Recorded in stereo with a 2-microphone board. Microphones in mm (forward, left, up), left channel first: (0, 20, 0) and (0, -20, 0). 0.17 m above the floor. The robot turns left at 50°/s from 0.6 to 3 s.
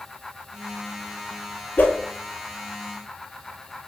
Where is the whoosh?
50° left (ahead or behind), 0.5 m; by 2.0 s 60° left (ahead or behind), 0.5 m.